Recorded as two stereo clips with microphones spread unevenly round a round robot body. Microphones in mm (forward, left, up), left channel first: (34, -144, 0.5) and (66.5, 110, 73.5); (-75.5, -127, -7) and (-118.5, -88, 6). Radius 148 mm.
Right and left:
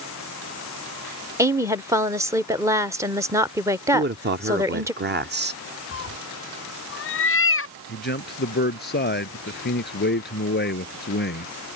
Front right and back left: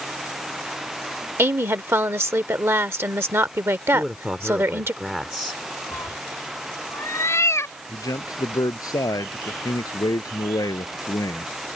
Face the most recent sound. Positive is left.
turn(degrees=-45)